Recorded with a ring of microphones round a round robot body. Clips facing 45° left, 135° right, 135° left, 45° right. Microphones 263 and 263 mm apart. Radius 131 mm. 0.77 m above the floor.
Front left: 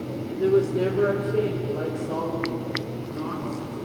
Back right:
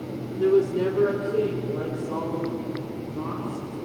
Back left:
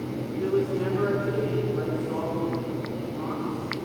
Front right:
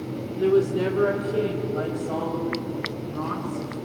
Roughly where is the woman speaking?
Ahead right.